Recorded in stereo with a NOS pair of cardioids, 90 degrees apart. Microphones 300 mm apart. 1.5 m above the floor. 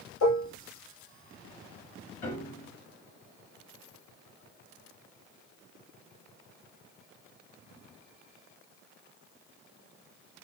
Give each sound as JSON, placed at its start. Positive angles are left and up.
{"t": 0.2, "sound": "dishes clattering", "azimuth_deg": 65, "distance_m": 4.0}
{"t": 2.2, "sound": "a piano", "azimuth_deg": 25, "distance_m": 4.5}